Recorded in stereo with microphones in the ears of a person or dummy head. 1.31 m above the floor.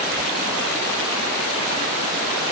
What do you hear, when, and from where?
Only background noise.